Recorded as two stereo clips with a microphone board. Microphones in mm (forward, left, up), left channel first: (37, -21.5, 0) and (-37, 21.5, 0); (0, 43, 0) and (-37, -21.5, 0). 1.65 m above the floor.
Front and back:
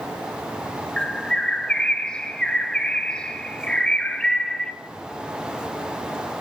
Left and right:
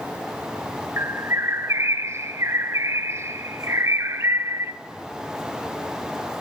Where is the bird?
105° right, 0.6 m.